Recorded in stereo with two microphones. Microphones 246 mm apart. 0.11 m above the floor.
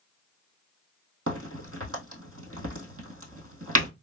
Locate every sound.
1.3 s a crack: 70° right (ahead or behind), 2.0 m